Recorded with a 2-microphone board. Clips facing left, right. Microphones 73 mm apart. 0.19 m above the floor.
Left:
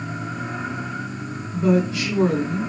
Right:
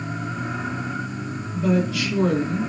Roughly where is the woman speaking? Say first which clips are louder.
Left 2 dB; left.